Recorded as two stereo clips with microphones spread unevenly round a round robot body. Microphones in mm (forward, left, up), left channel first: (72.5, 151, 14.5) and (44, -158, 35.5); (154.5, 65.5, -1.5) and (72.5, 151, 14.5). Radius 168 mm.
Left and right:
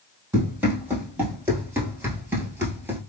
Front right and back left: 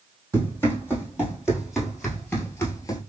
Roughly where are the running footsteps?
Behind.